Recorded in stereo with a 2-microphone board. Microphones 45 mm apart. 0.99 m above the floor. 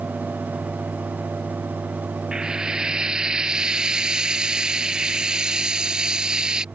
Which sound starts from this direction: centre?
Frying, at 2.3 s.